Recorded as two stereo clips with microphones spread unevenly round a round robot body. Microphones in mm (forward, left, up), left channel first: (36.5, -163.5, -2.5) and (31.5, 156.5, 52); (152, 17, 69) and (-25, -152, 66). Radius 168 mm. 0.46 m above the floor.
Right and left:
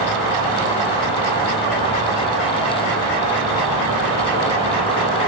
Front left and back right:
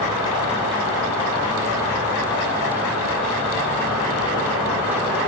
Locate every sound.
0.0 s an insect: 130° left, 1.4 m